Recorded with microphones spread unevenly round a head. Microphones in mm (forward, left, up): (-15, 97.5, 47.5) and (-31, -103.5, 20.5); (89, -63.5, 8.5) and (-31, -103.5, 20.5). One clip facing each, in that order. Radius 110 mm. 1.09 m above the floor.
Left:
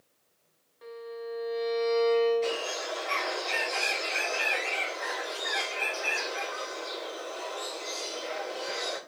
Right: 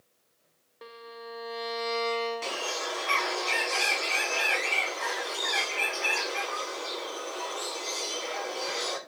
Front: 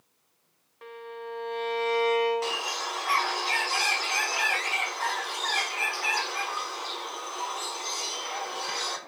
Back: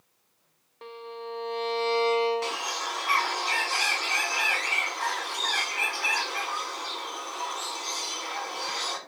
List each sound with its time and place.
0.8 s a violin: 95° right, 0.5 m
2.4 s a bird: 65° right, 1.3 m